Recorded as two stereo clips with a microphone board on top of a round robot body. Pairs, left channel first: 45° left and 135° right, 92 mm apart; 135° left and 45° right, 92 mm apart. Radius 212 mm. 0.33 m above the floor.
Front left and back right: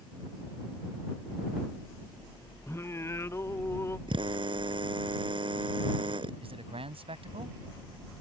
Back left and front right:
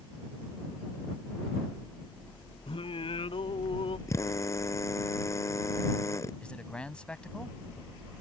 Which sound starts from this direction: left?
Singing, at 2.7 s.